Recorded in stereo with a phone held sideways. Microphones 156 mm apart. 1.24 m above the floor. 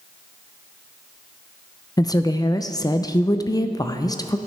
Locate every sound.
2.0 s a woman speaking: 25° left (ahead or behind), 0.5 m